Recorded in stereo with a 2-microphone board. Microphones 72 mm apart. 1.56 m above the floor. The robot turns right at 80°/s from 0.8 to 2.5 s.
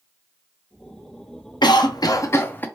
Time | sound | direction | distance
1.6 | a cough | 85° left | 0.6 m